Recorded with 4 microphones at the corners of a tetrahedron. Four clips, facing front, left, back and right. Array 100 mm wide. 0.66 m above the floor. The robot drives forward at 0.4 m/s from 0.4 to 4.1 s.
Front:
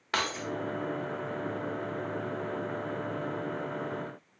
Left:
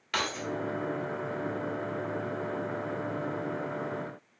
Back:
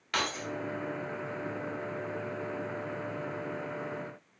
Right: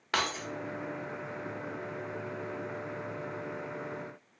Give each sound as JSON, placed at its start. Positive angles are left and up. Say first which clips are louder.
{"t": 0.1, "sound": "keys jangling", "louder": "even, front 1 dB", "azimuth_deg": -45, "distance_m": 0.9}